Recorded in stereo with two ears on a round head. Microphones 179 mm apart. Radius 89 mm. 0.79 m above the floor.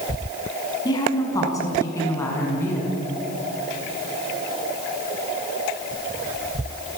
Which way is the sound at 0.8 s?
20° left (ahead or behind).